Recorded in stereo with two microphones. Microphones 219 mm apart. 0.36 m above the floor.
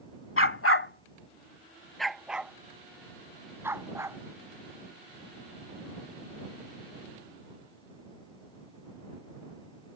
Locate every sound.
0.4 s a dog barking: 70° left (ahead or behind); by 4.2 s 10° right (ahead or behind)